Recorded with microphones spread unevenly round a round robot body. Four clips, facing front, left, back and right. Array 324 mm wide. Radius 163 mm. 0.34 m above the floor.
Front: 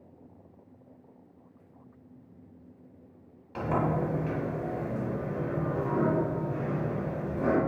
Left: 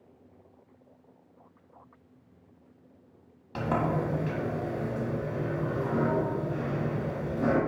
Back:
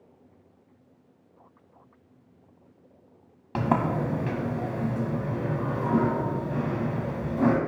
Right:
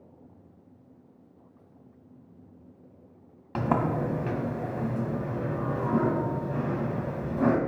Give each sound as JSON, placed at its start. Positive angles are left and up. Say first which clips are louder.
{"t": 3.5, "sound": "a sliding door", "louder": "right 2 dB, back 3 dB", "azimuth_deg": -150, "distance_m": 2.0}